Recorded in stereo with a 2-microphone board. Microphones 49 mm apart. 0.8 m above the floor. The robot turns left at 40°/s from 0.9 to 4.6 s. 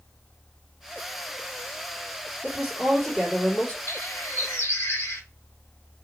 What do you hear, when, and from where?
2.4 s a woman speaking: 160° right, 2 m; by 3.8 s 150° left, 2 m
3.9 s a bird: 70° left (ahead or behind), 1.8 m; by 5.2 s 75° left (ahead or behind), 1.8 m